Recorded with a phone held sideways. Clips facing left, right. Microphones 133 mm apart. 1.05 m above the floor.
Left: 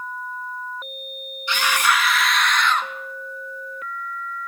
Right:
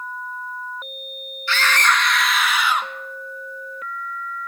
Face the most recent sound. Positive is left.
turn(degrees=-15)  # may be behind; listen again after turning